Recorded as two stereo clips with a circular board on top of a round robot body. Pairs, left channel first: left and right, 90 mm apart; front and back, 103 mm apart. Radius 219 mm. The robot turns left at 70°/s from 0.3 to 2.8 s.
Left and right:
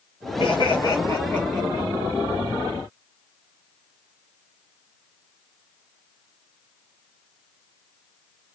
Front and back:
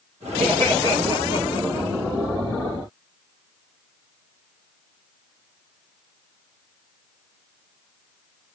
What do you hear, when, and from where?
0.4 s laughter: 95° left, 2.5 m; by 1.9 s 10° right, 2.5 m